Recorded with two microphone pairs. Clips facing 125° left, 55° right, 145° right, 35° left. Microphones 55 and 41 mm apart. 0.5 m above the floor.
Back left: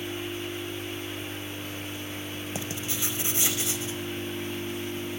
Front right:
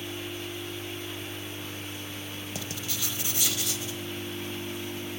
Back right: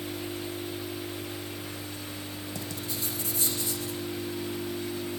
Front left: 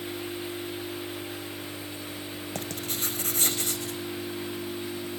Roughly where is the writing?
Ahead left.